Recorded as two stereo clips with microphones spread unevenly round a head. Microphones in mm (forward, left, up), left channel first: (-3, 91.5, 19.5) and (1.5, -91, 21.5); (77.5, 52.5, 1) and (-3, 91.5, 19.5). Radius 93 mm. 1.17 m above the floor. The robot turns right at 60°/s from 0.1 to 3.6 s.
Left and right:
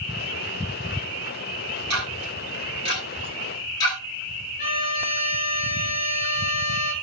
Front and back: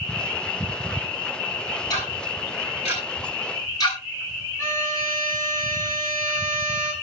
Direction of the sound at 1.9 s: 85° right.